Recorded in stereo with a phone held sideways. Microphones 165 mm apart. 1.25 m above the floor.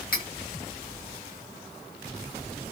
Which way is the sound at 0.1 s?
55° left (ahead or behind).